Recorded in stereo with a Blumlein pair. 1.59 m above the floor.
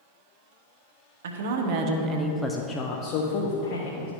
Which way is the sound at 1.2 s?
60° right.